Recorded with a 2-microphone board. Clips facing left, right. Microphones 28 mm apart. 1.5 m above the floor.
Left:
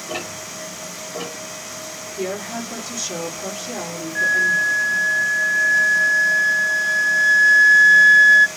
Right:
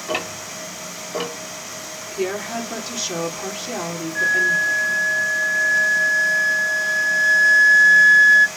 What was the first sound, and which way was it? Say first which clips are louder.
Ticking: right 4 dB; 40° right (ahead or behind).